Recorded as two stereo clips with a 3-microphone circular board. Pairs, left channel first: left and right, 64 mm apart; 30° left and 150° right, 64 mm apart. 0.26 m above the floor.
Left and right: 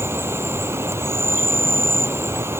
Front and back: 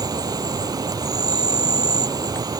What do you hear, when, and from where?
0.0 s an insect: 140° right